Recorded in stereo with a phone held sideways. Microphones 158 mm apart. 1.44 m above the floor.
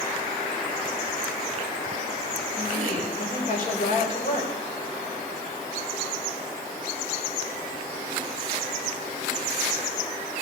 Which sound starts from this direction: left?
A woman speaking, at 2.6 s.